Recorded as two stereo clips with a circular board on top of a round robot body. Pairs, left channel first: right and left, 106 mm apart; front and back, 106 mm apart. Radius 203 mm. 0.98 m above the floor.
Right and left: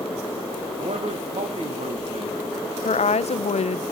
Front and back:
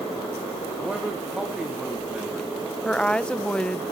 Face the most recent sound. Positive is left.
turn(degrees=-80)